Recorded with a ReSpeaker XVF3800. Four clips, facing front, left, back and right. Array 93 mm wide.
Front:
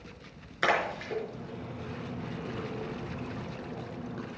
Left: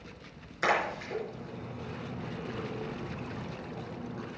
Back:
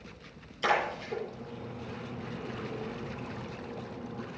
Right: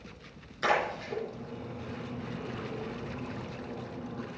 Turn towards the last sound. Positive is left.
turn(degrees=10)